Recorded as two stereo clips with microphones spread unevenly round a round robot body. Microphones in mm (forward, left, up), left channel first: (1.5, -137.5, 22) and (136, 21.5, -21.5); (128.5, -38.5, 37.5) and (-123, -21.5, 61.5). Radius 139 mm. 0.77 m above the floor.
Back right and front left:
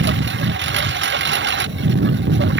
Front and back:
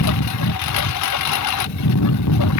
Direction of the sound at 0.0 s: 20° left.